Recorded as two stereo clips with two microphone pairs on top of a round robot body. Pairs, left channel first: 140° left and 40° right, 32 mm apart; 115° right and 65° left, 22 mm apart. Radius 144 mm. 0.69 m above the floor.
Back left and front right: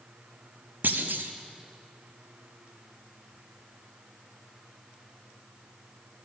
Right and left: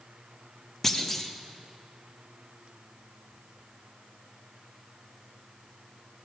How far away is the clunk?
About 1.1 m.